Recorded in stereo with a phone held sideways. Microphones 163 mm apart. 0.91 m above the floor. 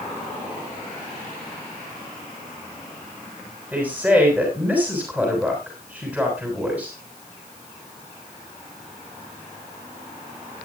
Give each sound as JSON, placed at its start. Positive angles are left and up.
{"t": 3.7, "sound": "a woman speaking", "side_deg": -10, "distance_m": 6.0}